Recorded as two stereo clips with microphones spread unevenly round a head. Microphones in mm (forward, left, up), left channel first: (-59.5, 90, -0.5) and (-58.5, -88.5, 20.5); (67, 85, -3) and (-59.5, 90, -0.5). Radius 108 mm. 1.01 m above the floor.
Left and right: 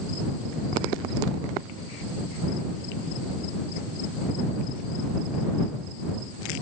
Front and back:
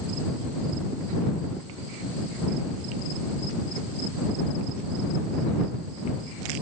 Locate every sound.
Only background noise.